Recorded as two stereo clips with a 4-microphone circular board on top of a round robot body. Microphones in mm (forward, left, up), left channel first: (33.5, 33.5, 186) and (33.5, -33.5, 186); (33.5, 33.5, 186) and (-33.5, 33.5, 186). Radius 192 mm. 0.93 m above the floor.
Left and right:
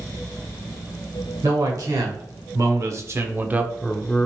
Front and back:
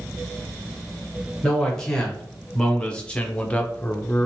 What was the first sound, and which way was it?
A man speaking, 80° right.